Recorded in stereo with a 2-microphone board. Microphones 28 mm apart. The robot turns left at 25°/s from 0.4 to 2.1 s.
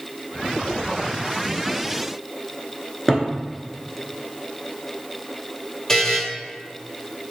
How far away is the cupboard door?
About 1.1 m.